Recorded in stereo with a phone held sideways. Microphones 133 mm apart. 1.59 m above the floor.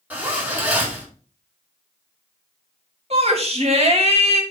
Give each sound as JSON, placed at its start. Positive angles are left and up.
{"t": 0.1, "sound": "a zipper", "side_deg": -10, "distance_m": 3.0}
{"t": 3.1, "sound": "a shout", "side_deg": -50, "distance_m": 2.5}